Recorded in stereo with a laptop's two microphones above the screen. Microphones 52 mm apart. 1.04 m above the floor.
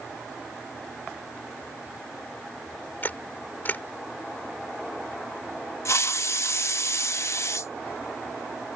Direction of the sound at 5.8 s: 65° left (ahead or behind).